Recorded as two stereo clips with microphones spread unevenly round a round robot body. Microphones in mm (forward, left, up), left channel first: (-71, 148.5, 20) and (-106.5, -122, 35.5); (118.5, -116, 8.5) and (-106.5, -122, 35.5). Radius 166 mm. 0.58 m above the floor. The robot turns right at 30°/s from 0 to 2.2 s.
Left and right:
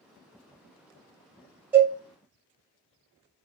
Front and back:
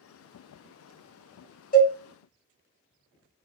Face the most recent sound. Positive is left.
turn(degrees=5)